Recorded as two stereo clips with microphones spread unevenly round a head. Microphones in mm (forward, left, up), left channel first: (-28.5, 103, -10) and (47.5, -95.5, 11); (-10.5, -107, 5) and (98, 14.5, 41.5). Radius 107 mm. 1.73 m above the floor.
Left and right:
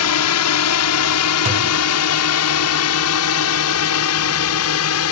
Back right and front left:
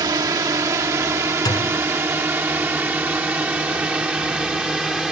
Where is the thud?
60° right.